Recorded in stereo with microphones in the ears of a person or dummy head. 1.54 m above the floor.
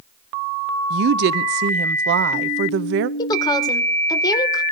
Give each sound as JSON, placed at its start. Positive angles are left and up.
{"t": 0.9, "sound": "a woman speaking", "side_deg": -55, "distance_m": 0.5}
{"t": 3.2, "sound": "a woman speaking", "side_deg": 20, "distance_m": 1.9}